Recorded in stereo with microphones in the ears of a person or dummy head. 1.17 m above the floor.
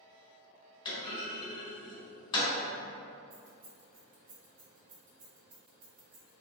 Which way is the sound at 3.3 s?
45° right (ahead or behind).